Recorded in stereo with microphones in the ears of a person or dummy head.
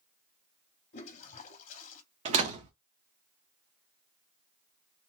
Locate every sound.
0.9 s a toilet flushing: 45° left (ahead or behind), 0.7 m
2.2 s a door slam: 35° right (ahead or behind), 0.8 m